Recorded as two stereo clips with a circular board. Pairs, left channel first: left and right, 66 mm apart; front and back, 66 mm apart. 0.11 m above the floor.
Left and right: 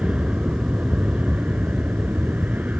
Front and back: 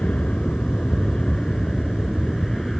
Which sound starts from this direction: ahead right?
An aircraft, at 0.0 s.